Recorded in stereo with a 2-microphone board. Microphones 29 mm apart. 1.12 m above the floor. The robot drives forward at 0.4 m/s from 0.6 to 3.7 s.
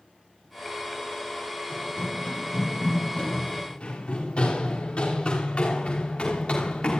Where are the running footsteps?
40° left (ahead or behind), 8.5 m; by 7.0 s 35° left (ahead or behind), 6 m.